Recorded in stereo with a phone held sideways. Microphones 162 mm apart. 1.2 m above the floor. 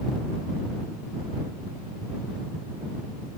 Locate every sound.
Only background noise.